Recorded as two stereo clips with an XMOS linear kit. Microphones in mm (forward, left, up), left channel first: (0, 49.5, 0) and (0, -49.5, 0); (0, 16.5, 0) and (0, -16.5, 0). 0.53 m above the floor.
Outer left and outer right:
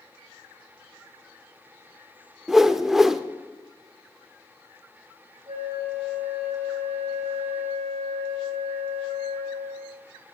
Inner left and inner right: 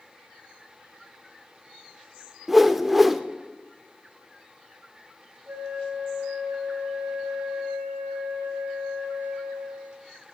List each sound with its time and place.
2.5 s a whoosh: 5° right (ahead or behind), 0.5 m
5.5 s a flute: 70° right (ahead or behind), 2.5 m